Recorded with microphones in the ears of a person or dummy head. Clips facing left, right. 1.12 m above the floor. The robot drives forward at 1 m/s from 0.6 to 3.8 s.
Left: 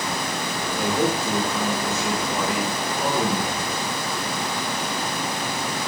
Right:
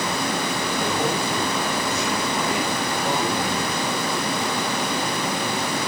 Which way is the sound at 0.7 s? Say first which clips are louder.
Left 3 dB; 85° left.